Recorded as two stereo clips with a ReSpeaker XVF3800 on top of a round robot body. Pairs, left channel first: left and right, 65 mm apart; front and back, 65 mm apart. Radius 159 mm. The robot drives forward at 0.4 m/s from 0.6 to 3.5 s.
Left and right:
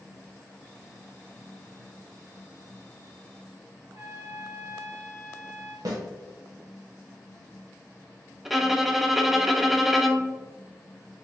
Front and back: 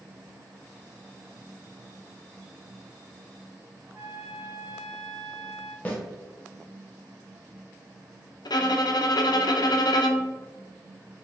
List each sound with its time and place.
3.8 s a trumpet: 155° right, 2 m
5.8 s a snare drum: 65° right, 1.3 m
8.4 s a violin: 5° right, 0.6 m